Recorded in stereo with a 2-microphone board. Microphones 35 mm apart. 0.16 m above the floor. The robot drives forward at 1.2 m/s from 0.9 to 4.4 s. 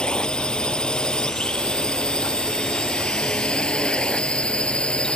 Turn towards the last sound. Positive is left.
turn(degrees=25)  # may be behind; listen again after turning